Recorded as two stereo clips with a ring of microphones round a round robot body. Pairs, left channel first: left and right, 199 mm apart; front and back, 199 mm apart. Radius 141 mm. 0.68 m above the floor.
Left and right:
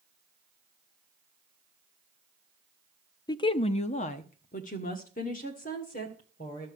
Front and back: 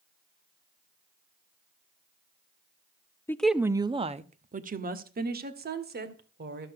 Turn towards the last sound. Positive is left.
turn(degrees=150)